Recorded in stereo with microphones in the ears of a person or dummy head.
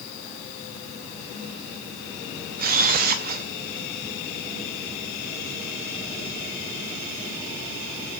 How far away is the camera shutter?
About 1.0 m.